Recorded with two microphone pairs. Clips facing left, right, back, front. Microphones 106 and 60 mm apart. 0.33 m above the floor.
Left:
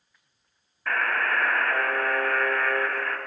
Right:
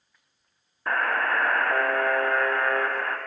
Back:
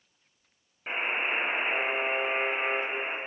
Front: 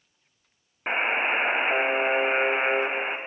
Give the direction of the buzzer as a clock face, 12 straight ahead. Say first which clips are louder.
Right 1 dB, front 5 dB; 1 o'clock.